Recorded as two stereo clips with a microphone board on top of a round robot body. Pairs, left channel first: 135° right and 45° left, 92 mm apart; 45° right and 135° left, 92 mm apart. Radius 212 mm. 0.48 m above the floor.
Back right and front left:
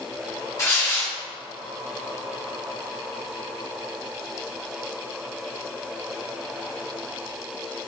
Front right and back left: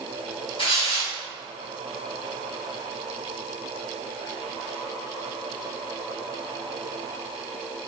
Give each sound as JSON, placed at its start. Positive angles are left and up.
{"t": 0.6, "sound": "tearing paper", "azimuth_deg": -75, "distance_m": 2.5}